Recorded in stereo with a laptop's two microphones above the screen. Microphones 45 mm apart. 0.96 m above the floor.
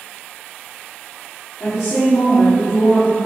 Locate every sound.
1.6 s a woman speaking: 70° left (ahead or behind), 3 m